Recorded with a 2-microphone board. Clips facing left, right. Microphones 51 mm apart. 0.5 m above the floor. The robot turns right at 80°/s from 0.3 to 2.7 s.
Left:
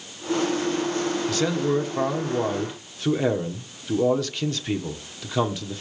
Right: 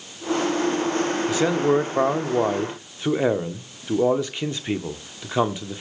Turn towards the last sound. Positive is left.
turn(degrees=-35)